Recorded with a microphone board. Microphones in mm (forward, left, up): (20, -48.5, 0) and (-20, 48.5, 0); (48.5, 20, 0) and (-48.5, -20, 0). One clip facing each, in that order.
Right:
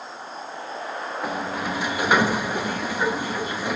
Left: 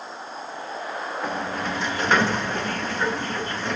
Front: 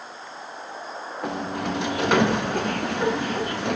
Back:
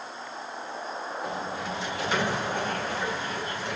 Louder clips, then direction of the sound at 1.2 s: Right 1 dB, front 8 dB; 15° left.